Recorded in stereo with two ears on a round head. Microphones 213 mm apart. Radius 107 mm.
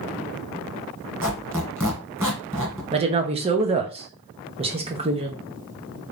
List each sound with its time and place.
1.2 s a squeak: 10° right (ahead or behind), 1.6 m
2.9 s a woman speaking: 25° right (ahead or behind), 0.9 m